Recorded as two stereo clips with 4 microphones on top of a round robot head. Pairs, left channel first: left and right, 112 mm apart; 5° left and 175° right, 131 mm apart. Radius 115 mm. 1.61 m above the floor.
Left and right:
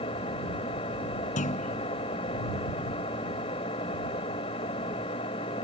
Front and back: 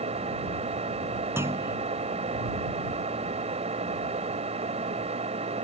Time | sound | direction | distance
0.0 | an engine running | 145° left | ?
1.4 | a clunk | 115° left | ?